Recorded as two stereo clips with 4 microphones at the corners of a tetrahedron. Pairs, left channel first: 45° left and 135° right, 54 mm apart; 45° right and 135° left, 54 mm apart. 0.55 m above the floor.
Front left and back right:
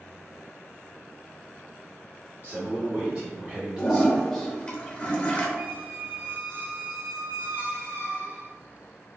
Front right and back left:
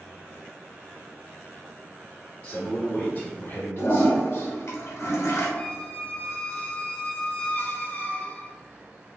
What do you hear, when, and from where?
2.4 s a man speaking: 115° right, 1.2 m; by 4.6 s 35° right, 1.4 m
3.8 s a toilet flushing: 25° right, 0.9 m
5.6 s a squeak: 100° right, 0.9 m